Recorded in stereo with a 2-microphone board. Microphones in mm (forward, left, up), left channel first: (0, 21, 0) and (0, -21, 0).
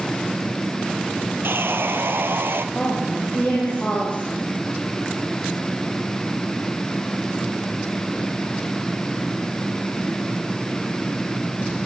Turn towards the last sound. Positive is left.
turn(degrees=25)  # may be behind; listen again after turning